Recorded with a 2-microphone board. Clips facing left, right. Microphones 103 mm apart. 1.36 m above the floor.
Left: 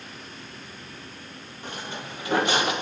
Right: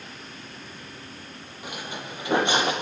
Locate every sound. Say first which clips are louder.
1.6 s footsteps: even; 10° right (ahead or behind), 2.5 m; by 2.7 s 30° right (ahead or behind), 2.5 m